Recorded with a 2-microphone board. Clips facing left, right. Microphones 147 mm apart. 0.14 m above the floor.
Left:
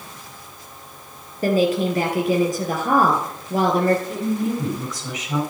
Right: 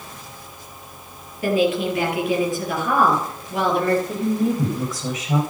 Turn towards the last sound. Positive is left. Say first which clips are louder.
# right 2 dB
turn(degrees=-30)  # may be behind; listen again after turning